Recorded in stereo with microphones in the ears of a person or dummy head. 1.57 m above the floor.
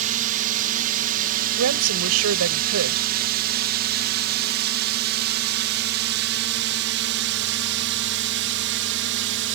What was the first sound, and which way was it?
A drone, 40° right (ahead or behind).